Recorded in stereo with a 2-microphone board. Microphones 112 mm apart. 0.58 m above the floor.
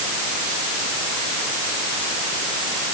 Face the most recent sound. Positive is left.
No sound to turn to.